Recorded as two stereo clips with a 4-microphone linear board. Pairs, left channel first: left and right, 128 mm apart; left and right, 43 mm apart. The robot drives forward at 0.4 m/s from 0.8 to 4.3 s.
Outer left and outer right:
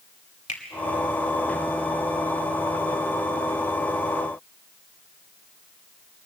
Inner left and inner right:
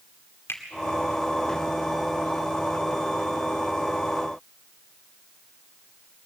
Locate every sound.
0.5 s a finger snap: 65° left (ahead or behind), 2.0 m